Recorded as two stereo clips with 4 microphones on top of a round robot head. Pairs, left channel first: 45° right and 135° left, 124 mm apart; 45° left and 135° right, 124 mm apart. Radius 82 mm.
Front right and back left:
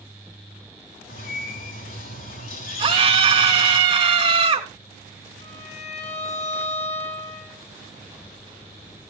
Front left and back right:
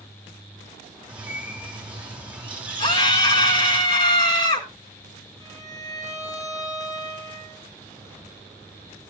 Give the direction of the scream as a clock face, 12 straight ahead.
9 o'clock.